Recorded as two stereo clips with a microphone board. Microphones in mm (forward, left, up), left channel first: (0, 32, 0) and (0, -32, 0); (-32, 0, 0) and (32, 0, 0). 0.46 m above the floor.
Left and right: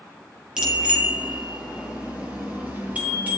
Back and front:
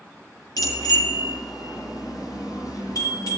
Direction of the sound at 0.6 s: 170° right.